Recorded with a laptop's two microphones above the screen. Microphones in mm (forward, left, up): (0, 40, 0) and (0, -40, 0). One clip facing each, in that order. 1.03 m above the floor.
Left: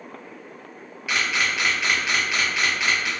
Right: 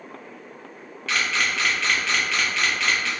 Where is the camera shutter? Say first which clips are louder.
Even; 15° left (ahead or behind), 0.7 m.